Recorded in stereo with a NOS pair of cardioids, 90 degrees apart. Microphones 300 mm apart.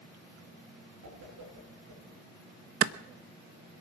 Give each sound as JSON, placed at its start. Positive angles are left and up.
{"t": 1.0, "sound": "a whoosh", "azimuth_deg": -65, "distance_m": 7.5}
{"t": 2.8, "sound": "a clap", "azimuth_deg": -50, "distance_m": 0.9}